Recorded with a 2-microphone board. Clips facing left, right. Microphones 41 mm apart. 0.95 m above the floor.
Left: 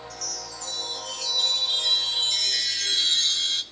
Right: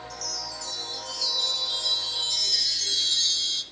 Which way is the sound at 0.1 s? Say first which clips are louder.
Right 1 dB; 50° left (ahead or behind).